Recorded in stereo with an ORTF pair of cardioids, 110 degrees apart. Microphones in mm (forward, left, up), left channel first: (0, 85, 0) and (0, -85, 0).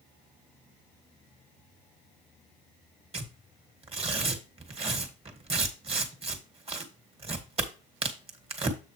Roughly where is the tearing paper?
Ahead right.